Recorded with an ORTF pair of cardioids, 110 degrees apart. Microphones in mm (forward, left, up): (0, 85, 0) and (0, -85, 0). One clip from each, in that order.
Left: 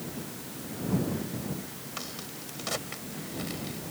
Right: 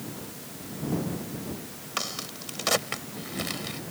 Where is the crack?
50° right.